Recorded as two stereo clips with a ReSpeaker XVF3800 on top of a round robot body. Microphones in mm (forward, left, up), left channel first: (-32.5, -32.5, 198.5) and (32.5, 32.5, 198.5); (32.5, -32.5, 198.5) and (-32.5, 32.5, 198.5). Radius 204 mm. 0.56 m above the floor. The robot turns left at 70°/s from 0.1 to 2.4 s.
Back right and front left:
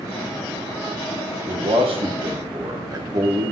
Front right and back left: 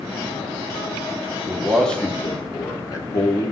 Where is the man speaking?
65° left, 2.5 m; by 3.5 s straight ahead, 2.5 m.